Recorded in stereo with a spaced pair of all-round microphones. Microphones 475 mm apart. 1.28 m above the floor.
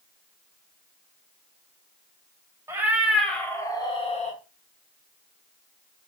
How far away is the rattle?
I don't hear a rattle.